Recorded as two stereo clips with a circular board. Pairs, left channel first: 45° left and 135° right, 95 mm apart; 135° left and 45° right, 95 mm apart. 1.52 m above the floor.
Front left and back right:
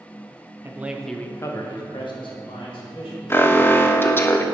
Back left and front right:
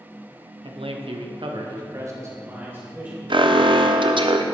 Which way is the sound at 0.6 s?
70° right.